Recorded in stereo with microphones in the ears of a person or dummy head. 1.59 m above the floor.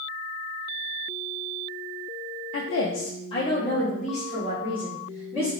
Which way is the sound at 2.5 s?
75° left (ahead or behind).